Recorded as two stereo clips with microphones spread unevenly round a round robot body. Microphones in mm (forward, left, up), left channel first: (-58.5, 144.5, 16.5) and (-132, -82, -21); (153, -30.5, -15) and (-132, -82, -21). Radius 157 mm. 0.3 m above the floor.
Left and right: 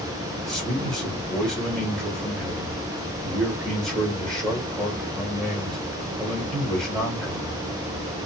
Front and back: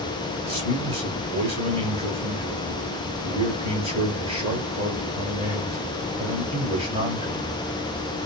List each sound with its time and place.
0.4 s a man speaking: 175° right, 1.1 m